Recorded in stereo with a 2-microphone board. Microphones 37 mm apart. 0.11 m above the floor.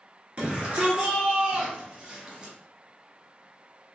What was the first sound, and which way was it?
A shout, 35° right (ahead or behind).